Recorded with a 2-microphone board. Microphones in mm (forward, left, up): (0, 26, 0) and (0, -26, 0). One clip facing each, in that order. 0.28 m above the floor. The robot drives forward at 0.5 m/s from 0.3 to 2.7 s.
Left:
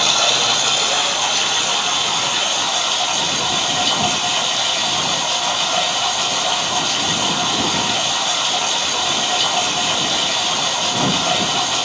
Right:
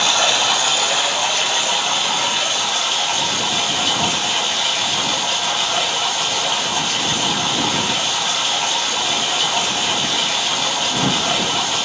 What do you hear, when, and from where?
0.0 s running water: 15° right (ahead or behind), 0.8 m; by 11.9 s 5° right (ahead or behind), 1.9 m